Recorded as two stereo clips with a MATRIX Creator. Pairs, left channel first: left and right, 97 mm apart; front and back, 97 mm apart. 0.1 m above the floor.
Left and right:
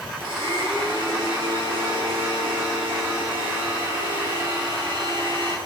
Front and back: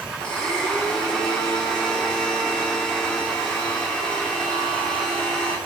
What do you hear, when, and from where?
0.2 s a blender: 80° right, 1.1 m